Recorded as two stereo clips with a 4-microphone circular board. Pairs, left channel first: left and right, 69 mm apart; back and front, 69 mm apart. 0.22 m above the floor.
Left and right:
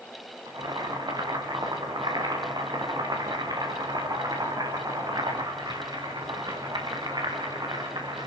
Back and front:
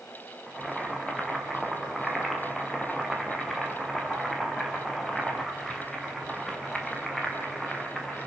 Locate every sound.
0.5 s boiling: 95° right, 5.5 m